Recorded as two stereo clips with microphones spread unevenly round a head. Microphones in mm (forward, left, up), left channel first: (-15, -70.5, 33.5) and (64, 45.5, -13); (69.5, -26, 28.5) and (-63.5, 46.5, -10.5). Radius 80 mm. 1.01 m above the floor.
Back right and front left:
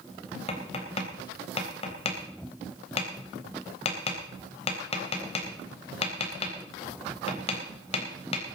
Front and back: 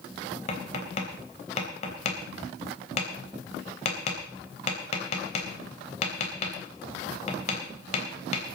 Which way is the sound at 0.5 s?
80° right.